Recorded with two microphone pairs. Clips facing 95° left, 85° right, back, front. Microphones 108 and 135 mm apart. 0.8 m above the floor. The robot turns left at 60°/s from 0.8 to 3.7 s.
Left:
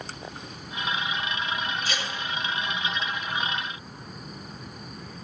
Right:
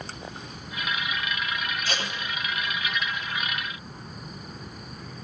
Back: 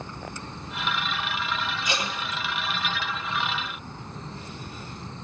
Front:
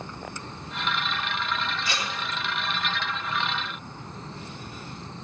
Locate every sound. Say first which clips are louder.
1.9 s tape being pulled: right 1 dB, back 2 dB; 110° right, 1.9 m; by 2.2 s 130° right, 1.9 m